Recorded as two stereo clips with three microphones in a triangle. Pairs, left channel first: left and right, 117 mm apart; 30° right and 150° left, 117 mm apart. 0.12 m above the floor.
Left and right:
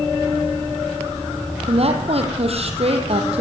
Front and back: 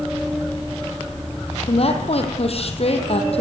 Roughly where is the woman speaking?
Ahead right.